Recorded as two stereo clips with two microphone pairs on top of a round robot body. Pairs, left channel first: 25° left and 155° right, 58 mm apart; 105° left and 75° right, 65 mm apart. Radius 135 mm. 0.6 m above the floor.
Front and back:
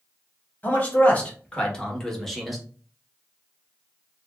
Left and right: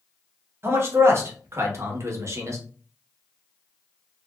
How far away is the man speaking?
About 1.7 m.